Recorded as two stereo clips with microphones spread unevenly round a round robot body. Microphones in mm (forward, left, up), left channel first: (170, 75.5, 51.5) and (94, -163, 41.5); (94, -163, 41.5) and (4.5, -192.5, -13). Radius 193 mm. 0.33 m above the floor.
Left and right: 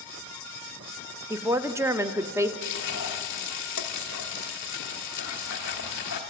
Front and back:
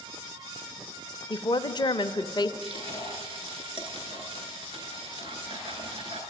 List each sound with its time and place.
1.3 s a woman speaking: 45° right, 0.9 m
2.6 s frying: 135° left, 0.7 m